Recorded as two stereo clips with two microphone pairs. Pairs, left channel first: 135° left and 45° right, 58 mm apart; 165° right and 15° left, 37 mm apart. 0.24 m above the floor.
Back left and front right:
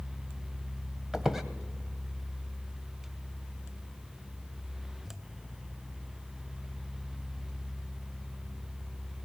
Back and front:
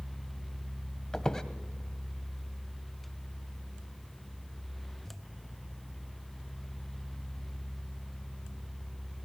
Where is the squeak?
125° right, 1.0 m.